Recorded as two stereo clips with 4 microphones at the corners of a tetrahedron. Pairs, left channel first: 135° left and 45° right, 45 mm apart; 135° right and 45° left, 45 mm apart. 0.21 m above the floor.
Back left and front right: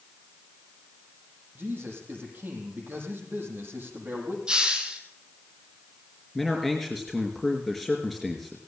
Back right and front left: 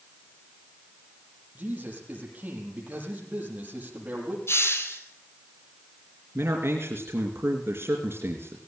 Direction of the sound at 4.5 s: 115° right.